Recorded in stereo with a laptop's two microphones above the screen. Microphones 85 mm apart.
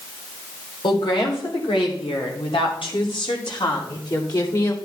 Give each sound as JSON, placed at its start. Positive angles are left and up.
{"t": 0.8, "sound": "a woman speaking", "side_deg": 70, "distance_m": 3.5}